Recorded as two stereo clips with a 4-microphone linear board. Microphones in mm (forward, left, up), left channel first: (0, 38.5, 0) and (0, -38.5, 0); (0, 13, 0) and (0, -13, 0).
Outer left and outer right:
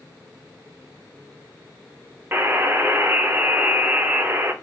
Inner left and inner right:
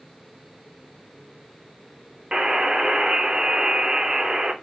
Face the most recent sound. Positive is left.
turn(degrees=-25)  # may be behind; listen again after turning